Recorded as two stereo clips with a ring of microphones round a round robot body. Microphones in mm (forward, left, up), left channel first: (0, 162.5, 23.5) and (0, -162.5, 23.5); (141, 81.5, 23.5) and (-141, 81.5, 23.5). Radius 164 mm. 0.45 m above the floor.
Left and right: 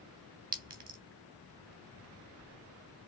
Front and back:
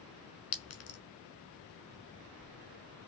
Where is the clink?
30° right, 1.1 m.